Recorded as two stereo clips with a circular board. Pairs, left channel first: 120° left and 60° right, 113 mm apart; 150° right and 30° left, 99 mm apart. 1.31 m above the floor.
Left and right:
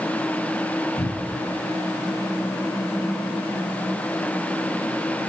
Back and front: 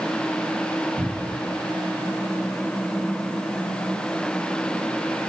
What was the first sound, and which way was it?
A cupboard door, 85° left.